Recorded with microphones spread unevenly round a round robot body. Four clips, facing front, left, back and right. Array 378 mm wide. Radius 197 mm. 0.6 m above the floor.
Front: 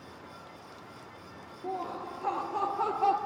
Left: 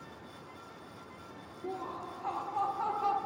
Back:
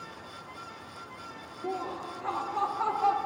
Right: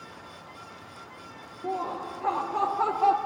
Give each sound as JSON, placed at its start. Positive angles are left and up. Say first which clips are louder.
{"t": 1.6, "sound": "laughter", "louder": "right 8 dB, back 1 dB", "azimuth_deg": -140, "distance_m": 0.8}